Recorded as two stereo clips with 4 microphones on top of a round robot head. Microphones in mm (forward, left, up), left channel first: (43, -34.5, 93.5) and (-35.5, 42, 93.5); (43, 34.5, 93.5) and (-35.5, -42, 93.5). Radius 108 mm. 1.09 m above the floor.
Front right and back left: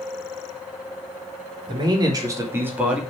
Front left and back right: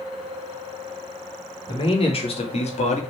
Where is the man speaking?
90° left, 3.5 m; by 3.0 s 50° left, 2.5 m.